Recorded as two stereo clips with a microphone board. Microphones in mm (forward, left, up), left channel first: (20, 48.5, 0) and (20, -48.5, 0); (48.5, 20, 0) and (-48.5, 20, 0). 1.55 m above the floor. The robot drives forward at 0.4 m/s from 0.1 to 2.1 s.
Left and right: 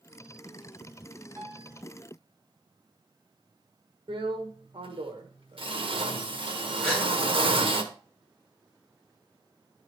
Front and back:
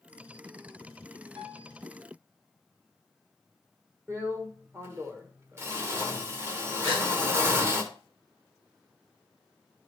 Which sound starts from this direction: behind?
A gasp, at 6.8 s.